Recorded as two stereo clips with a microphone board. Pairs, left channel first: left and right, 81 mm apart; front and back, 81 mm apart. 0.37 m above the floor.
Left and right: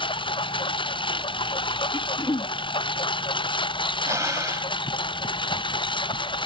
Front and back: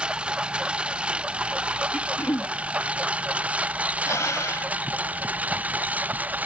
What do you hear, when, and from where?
0.0 s a lawn mower: 100° left; by 6.5 s 110° left
1.9 s throat clearing: 60° left
4.0 s breathing: 45° right